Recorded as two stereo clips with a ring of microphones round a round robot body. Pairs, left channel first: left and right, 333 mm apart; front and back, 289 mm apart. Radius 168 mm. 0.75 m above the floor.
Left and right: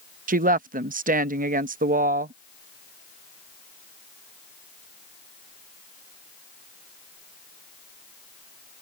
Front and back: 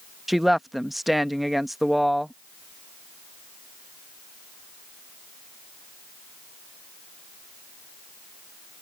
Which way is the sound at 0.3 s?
90° right.